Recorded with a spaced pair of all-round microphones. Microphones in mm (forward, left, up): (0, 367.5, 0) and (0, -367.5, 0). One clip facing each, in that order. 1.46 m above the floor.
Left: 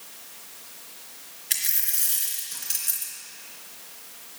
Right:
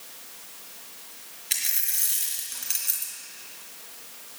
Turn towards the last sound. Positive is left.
turn(degrees=60)  # may be behind; listen again after turning